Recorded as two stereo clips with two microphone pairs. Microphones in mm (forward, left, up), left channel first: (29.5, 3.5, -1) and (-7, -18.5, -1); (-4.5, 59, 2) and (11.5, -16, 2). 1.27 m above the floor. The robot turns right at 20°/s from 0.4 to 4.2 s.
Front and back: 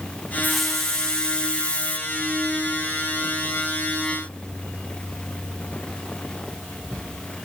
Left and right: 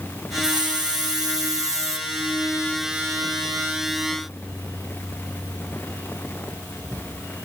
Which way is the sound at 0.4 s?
55° right.